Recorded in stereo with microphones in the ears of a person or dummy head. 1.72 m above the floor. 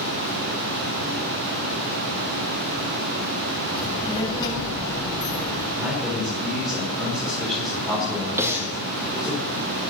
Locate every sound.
3.8 s a child speaking: 30° left (ahead or behind), 4.5 m; by 5.7 s 15° left (ahead or behind), 5 m
5.8 s a man speaking: 5° left (ahead or behind), 4.5 m
8.4 s breathing: 15° right (ahead or behind), 2 m